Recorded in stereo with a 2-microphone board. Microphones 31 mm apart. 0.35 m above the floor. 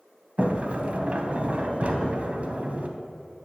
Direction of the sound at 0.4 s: 45° right (ahead or behind).